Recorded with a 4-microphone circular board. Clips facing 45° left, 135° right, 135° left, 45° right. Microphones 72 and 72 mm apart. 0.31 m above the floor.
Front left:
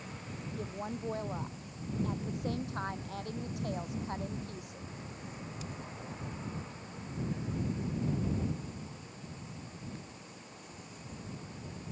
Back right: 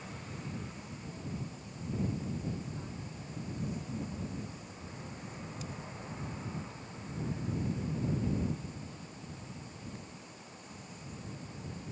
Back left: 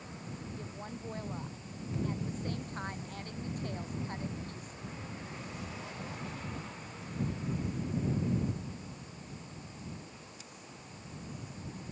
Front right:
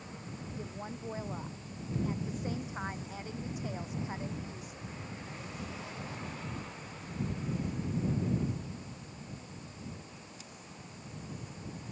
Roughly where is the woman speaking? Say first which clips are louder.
Front left 6 dB, front right 2 dB; ahead left.